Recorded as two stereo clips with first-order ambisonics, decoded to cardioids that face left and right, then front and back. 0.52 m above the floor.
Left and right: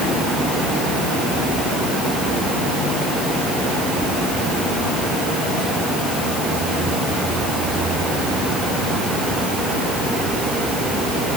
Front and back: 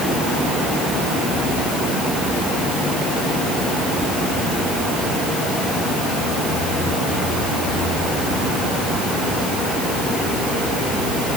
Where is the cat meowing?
I don't hear a cat meowing.